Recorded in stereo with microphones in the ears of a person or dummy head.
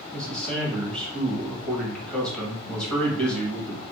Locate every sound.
0.1 s a man speaking: 10° left (ahead or behind), 1.1 m